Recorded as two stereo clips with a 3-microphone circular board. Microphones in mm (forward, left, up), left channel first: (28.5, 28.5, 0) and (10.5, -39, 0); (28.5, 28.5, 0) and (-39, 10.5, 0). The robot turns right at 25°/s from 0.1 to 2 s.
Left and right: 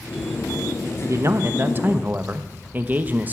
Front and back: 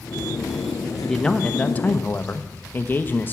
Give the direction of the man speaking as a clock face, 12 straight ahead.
2 o'clock.